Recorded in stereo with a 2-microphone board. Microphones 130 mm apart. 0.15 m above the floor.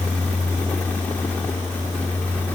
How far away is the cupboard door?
No cupboard door in this recording.